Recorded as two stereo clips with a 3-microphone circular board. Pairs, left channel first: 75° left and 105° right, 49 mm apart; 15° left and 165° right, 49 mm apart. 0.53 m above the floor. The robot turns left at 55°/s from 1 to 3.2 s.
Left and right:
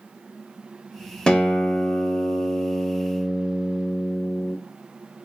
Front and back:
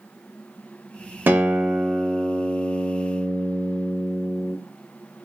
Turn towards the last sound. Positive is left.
turn(degrees=45)